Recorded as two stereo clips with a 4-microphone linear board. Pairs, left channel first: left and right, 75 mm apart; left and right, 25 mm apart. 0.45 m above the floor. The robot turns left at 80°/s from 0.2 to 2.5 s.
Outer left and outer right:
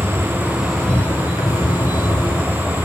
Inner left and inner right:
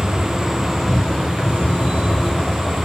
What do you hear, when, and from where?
0.0 s an insect: 140° right, 2 m; by 2.9 s 40° left, 2 m